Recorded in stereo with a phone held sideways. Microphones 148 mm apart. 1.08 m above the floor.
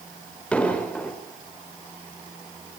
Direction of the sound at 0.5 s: 10° left (ahead or behind).